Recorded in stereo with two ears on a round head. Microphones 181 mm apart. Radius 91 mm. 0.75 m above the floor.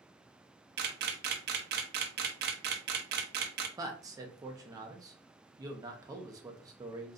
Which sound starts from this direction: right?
A camera shutter, at 0.8 s.